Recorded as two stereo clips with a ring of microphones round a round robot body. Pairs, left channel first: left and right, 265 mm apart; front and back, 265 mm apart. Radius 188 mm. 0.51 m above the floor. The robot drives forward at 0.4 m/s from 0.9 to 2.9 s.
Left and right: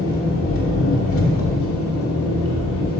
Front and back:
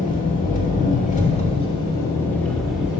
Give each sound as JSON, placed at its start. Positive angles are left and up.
{"t": 0.0, "sound": "an engine running", "azimuth_deg": 55, "distance_m": 1.5}